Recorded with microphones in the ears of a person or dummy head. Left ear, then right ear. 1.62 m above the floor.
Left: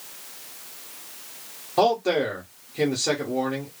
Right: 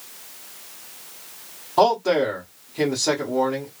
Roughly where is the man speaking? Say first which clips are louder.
Right 3 dB; centre.